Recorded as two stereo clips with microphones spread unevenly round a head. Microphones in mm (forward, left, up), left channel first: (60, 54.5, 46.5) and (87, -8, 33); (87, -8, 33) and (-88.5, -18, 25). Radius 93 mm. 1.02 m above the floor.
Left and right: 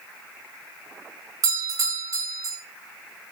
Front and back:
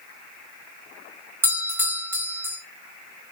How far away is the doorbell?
About 3 m.